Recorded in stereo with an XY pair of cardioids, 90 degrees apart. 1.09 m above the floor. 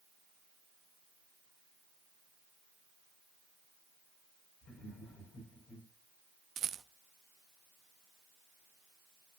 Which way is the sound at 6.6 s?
60° right.